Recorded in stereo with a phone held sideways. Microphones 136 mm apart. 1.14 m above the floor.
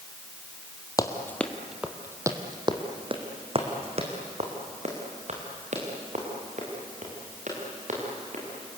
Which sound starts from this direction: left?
Running footsteps, at 1.0 s.